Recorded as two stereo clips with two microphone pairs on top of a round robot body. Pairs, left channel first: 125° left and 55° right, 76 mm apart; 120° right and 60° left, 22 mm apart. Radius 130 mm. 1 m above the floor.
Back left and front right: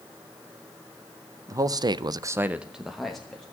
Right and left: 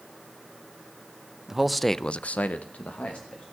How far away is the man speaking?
About 1.0 m.